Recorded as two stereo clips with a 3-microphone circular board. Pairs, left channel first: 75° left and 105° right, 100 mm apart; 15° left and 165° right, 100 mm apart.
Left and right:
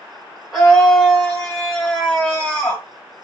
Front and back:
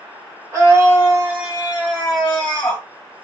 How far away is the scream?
About 1.8 m.